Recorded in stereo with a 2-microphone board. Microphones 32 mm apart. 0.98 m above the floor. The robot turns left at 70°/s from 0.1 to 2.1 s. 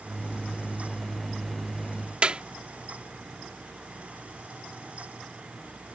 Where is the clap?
30° right (ahead or behind).